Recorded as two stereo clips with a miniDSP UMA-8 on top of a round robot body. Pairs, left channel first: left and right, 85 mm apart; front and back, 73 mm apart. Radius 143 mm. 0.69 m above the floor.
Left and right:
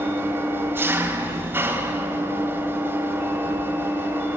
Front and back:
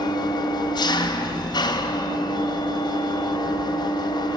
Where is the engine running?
25° right, 3 m.